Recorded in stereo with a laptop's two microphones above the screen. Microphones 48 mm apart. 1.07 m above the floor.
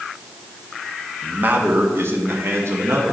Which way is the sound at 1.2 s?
40° right (ahead or behind).